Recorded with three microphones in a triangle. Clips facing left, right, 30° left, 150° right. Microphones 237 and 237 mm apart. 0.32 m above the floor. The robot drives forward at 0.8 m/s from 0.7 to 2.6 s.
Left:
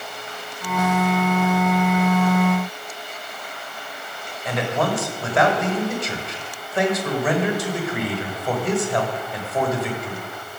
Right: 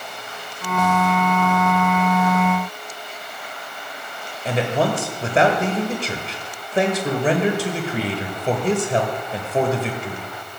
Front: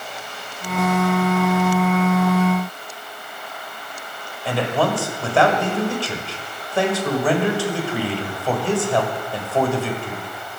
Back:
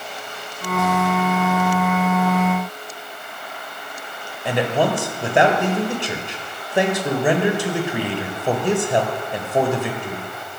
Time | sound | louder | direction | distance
4.5 | a man speaking | right 2 dB, back 1 dB | 100° right | 1.4 m